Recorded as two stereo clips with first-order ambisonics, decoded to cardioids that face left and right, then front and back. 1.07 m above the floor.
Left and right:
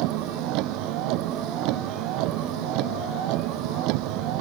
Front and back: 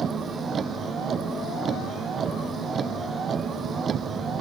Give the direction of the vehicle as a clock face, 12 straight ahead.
4 o'clock.